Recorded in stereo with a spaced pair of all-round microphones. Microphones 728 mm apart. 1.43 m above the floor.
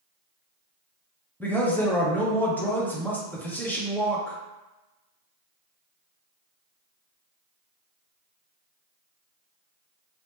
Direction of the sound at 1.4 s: 5° left (ahead or behind).